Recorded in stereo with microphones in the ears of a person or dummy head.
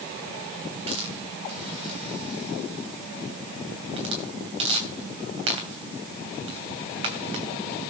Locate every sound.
0.9 s a hiss: 35° right (ahead or behind), 2.5 m